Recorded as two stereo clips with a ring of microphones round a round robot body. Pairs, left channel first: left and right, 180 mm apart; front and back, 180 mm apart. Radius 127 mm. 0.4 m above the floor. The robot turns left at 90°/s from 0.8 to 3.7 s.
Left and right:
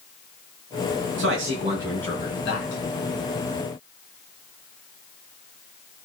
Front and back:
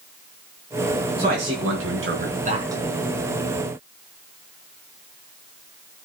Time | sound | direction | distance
1.2 | a man speaking | 110° right | 5 m